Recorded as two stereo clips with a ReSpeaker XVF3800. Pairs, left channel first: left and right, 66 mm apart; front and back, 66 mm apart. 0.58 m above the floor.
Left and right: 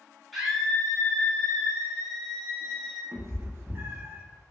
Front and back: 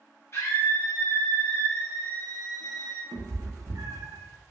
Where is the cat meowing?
140° right, 0.5 m.